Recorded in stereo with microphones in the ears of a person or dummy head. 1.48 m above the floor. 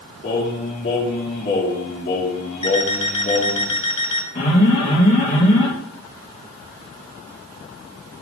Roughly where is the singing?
Left.